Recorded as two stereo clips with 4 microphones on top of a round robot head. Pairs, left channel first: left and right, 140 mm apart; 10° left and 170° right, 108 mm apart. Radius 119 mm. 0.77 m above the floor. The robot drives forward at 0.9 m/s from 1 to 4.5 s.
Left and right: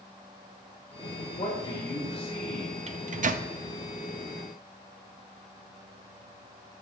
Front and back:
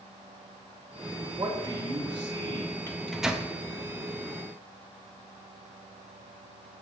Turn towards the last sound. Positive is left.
turn(degrees=-150)